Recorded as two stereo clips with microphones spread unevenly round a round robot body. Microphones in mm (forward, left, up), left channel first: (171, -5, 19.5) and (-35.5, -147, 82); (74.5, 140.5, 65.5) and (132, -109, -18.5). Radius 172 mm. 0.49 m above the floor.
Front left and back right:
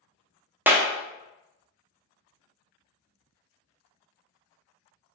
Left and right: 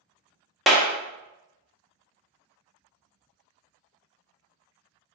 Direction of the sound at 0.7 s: 40° right.